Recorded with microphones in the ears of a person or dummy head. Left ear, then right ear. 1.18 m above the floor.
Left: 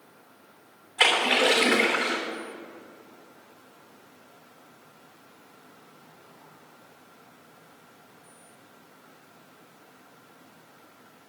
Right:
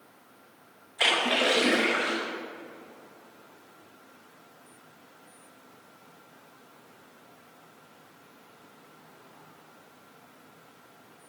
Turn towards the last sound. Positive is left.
turn(degrees=30)  # may be behind; listen again after turning